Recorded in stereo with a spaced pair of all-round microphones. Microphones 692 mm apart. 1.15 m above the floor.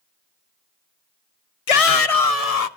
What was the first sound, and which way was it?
A shout, 55° left (ahead or behind).